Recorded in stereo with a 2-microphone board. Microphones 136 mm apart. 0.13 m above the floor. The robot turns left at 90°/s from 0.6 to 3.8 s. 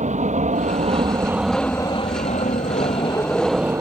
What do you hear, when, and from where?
0.0 s an aircraft: 100° right; by 3.8 s 25° right